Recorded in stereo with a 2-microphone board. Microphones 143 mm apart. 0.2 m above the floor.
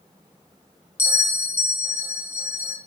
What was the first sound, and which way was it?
A bell, 20° left (ahead or behind).